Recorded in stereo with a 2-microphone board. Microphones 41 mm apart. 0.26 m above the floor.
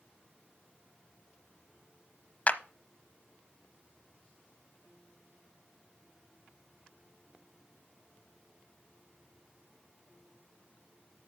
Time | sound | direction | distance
2.5 | a clap | 40° left (ahead or behind) | 1.0 m